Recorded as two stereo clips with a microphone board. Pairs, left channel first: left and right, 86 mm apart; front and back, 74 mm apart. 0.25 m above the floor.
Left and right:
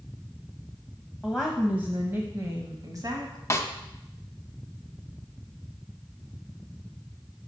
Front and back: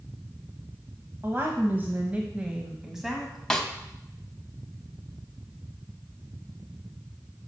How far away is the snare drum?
About 0.9 m.